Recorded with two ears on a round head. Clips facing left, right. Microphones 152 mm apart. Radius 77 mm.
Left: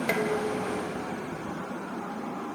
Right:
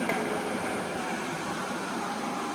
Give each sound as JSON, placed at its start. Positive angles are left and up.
{"t": 0.1, "sound": "dishes clattering", "side_deg": 35}